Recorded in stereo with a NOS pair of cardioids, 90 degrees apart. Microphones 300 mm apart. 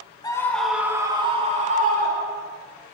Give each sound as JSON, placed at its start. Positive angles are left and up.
{"t": 0.2, "sound": "a scream", "azimuth_deg": 15, "distance_m": 1.9}